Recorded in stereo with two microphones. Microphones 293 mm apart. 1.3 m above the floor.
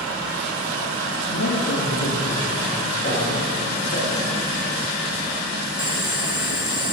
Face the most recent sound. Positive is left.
turn(degrees=-50)  # may be behind; listen again after turning